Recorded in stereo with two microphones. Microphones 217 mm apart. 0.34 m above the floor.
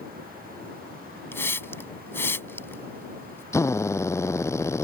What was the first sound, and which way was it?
A hiss, 10° left (ahead or behind).